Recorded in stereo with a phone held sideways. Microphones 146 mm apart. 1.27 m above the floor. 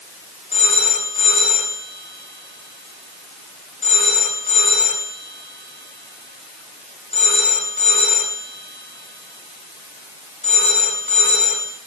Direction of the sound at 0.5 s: 50° left (ahead or behind).